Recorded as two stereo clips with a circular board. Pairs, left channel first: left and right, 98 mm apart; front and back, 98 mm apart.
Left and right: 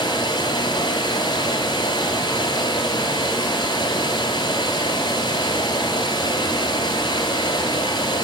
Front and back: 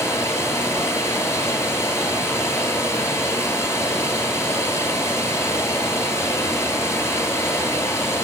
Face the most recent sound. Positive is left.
turn(degrees=60)